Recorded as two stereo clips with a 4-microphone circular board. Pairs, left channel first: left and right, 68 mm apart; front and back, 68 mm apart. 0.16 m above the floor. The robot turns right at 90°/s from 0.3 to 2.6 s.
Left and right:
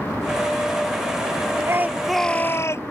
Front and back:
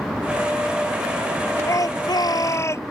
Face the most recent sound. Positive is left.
turn(degrees=45)